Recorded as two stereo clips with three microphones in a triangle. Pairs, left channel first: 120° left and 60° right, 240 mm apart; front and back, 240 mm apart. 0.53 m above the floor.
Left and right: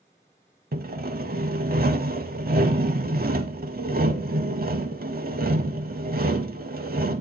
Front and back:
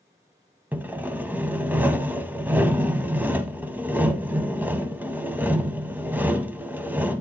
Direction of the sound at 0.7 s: 100° right.